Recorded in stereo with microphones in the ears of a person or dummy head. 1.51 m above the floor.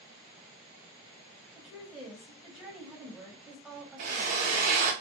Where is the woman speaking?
Centre (ahead or behind), 0.8 m.